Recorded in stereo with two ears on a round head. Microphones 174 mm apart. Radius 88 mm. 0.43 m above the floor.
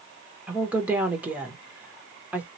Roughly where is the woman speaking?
Centre.